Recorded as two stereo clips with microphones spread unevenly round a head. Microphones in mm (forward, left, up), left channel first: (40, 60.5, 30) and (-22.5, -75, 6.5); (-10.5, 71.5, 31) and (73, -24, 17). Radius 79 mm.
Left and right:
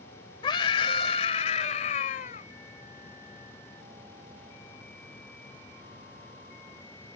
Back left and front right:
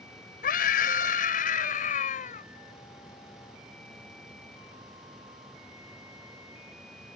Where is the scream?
125° left; by 2.5 s 105° left.